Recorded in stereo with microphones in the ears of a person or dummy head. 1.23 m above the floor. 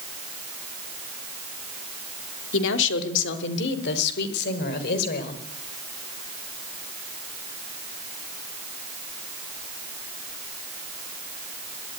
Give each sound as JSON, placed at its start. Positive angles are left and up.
{"t": 2.5, "sound": "a woman speaking", "side_deg": 75, "distance_m": 3.0}